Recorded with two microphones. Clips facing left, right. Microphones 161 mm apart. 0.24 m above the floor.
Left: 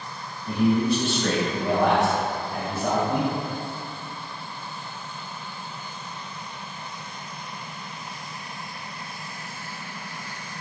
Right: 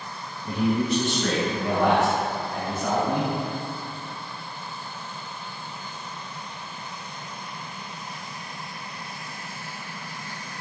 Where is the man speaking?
25° right (ahead or behind), 1.5 m; by 3.3 s 15° left (ahead or behind), 1.4 m.